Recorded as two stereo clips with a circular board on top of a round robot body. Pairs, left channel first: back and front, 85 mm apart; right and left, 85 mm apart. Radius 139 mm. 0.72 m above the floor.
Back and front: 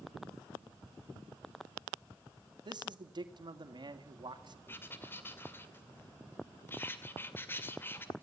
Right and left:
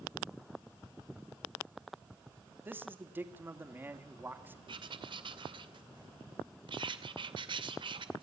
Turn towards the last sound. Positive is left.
turn(degrees=115)